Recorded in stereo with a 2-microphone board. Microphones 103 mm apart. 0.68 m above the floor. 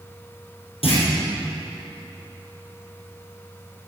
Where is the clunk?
80° left, 3 m.